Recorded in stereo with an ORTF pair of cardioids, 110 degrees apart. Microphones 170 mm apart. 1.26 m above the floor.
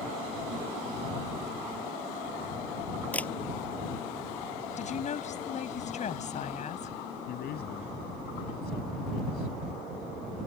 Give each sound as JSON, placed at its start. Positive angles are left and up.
{"t": 3.1, "sound": "a camera shutter", "azimuth_deg": 10}
{"t": 4.8, "sound": "a woman speaking", "azimuth_deg": 45}
{"t": 7.3, "sound": "a man speaking", "azimuth_deg": 70}